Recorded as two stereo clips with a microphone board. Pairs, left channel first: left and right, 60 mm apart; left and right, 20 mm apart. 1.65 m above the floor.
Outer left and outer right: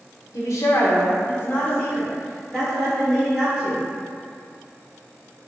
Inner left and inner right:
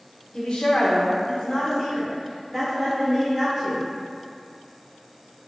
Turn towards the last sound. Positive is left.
turn(degrees=0)  # may be behind; listen again after turning